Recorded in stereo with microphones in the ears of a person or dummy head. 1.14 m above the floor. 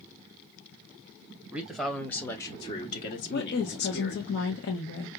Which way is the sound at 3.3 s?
65° left (ahead or behind).